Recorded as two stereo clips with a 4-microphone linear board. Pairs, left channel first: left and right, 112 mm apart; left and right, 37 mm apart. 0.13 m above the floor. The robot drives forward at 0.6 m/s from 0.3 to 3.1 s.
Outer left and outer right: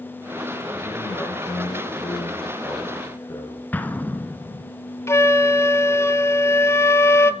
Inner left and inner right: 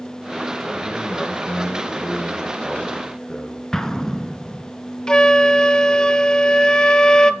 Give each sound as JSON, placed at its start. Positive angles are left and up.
{"t": 0.7, "sound": "a man speaking", "side_deg": 25, "distance_m": 6.0}
{"t": 3.7, "sound": "an explosion", "side_deg": 15, "distance_m": 1.6}
{"t": 5.1, "sound": "a flute", "side_deg": 25, "distance_m": 0.9}